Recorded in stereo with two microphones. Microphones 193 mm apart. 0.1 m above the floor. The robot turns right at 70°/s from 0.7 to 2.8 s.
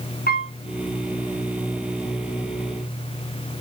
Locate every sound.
0.3 s a piano: 50° left (ahead or behind), 3 m